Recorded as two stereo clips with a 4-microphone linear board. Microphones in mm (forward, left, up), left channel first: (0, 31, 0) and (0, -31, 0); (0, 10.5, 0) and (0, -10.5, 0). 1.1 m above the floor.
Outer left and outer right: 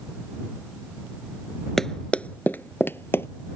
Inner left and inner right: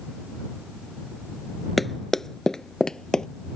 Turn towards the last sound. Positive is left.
turn(degrees=40)  # may be behind; listen again after turning